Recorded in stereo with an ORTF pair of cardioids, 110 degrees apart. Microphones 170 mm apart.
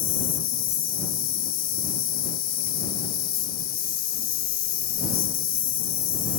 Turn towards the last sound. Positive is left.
turn(degrees=70)